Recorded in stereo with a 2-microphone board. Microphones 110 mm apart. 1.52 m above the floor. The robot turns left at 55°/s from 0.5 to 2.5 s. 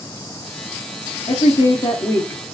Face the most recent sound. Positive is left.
turn(degrees=10)